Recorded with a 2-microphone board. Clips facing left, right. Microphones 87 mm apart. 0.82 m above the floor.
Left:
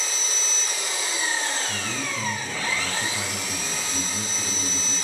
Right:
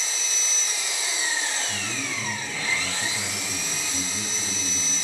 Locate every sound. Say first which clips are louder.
0.0 s an engine running: left 2 dB; 45° left (ahead or behind), 1.2 m
1.7 s a man speaking: left 2 dB; 25° left (ahead or behind), 1.2 m